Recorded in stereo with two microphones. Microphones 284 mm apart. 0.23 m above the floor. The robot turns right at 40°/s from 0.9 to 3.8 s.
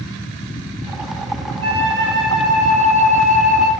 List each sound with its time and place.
1.6 s a flute: 35° left, 5 m; by 3.7 s 120° left, 5 m